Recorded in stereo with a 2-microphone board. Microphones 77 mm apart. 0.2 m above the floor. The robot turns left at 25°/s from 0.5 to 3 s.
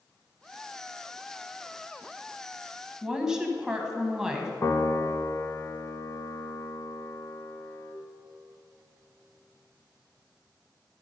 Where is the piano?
45° left (ahead or behind), 0.7 m.